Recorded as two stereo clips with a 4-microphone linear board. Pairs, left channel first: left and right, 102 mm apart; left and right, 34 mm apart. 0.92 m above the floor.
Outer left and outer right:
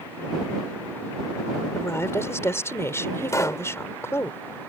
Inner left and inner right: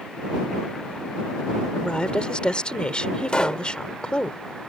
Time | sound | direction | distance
1.8 | a woman speaking | 30° left (ahead or behind) | ?
3.3 | a pop | 30° left (ahead or behind) | ?